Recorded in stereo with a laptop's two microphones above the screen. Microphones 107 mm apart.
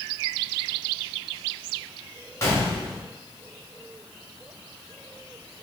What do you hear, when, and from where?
2.4 s a gunshot: 30° left (ahead or behind), 1.4 m